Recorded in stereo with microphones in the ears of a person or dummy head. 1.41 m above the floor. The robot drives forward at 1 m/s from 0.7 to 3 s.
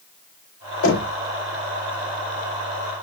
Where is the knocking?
75° left (ahead or behind), 5 m; by 1.1 s 80° left, 4.5 m.